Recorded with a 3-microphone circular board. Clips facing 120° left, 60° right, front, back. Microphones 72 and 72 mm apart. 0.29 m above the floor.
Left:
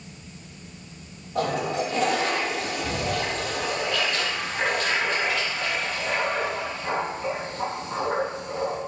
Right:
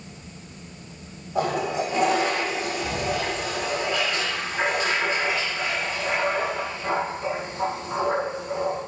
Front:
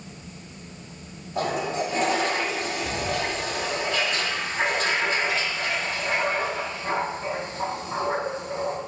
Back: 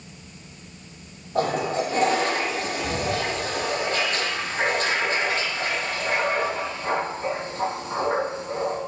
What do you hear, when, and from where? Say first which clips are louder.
1.4 s a toilet flushing: right 1 dB, back 3 dB; 135° right, 4 m